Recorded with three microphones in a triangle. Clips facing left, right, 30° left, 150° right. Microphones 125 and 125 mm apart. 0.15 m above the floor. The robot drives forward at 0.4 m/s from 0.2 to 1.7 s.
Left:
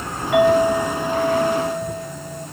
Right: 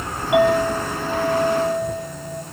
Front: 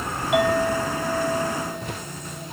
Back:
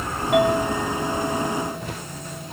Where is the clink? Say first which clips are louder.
Left 2 dB, back 1 dB; 155° right, 1.0 m; by 2.4 s 165° right, 1.4 m.